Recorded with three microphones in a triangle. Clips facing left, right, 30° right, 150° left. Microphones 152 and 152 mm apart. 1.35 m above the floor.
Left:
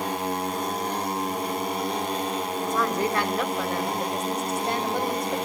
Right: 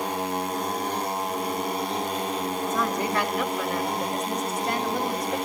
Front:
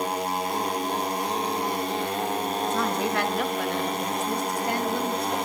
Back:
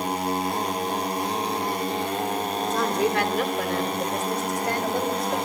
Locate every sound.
2.7 s a woman speaking: 145° left, 4.5 m; by 5.4 s 155° left, 6.5 m